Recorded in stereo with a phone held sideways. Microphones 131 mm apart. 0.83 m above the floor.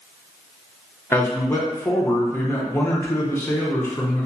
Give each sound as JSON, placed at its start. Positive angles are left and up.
{"t": 1.1, "sound": "a man speaking", "side_deg": 15, "distance_m": 0.5}